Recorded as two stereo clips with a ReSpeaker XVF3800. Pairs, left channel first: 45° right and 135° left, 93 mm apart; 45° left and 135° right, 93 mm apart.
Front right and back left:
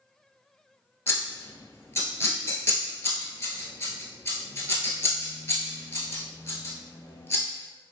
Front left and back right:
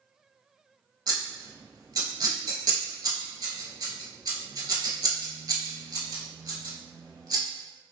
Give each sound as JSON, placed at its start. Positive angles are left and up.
{"t": 1.1, "sound": "scissors", "azimuth_deg": -105, "distance_m": 0.8}